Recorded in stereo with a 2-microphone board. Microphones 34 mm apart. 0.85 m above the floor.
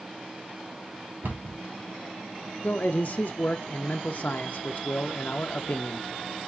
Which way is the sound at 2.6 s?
55° left (ahead or behind).